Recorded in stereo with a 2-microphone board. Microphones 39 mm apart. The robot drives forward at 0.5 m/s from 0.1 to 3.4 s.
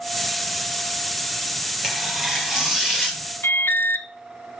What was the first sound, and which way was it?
Tearing paper, 15° right (ahead or behind).